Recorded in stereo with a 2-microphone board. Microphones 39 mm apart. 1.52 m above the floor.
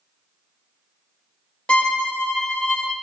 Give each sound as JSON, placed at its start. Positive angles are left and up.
{"t": 1.7, "sound": "a violin", "side_deg": 25, "distance_m": 0.9}